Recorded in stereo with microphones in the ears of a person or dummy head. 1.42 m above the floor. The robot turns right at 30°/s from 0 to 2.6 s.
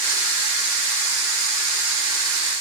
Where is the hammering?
I don't hear hammering.